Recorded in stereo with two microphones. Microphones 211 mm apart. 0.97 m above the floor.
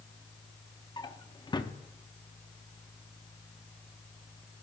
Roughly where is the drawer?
Left.